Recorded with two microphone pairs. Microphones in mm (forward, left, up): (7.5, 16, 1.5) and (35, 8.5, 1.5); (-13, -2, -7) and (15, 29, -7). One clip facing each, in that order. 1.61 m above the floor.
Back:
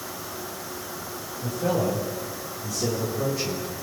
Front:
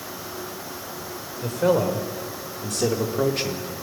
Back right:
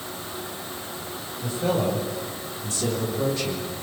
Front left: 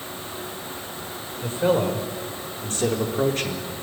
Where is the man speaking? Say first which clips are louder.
Front 4 dB, front left 3 dB; 5° right, 5.5 m; by 3.7 s 15° left, 3 m.